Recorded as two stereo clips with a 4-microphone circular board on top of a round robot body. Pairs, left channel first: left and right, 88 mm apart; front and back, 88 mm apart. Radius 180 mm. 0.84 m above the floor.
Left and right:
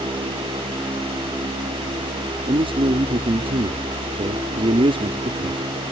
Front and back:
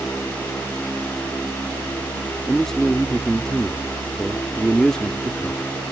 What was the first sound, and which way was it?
A man speaking, 85° right.